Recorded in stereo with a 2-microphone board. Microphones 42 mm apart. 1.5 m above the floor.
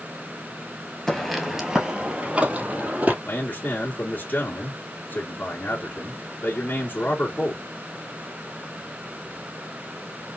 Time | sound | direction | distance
1.1 | footsteps | 10° left (ahead or behind) | 1.5 m
3.2 | a man speaking | 45° left (ahead or behind) | 2 m